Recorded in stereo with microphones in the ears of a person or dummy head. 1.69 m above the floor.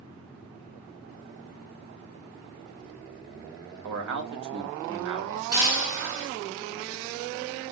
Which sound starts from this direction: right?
A man speaking, at 3.8 s.